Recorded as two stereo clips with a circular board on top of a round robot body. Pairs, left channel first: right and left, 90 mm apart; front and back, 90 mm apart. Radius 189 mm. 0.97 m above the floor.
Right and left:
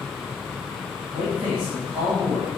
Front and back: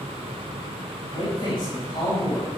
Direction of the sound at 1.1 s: 40° left.